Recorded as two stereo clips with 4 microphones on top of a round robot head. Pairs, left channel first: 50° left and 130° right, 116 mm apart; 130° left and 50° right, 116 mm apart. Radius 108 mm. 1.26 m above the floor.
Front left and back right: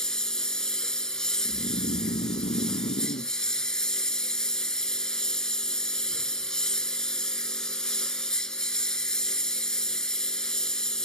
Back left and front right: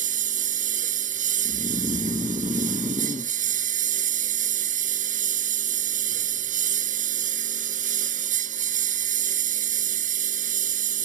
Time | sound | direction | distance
0.0 | a lawn mower | 35° right | ?
1.4 | snoring | 10° left | ?